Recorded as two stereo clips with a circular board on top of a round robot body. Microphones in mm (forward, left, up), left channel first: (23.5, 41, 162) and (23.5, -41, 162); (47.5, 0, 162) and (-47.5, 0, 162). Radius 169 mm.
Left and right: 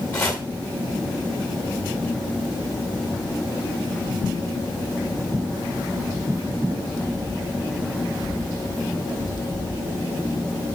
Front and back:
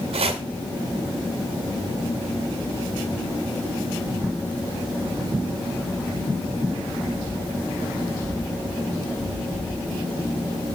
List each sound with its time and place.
0.1 s chopping: 155° left, 0.6 m